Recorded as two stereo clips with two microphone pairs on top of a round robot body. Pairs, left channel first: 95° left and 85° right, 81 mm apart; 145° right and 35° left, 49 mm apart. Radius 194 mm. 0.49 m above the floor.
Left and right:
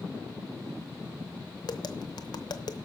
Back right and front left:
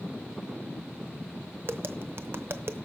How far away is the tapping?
About 0.9 m.